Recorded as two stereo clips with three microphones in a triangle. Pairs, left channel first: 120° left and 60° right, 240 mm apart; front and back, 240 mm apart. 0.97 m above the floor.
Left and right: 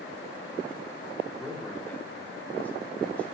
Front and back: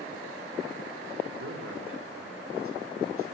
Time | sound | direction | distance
1.3 | a man speaking | 155° right | 2.5 m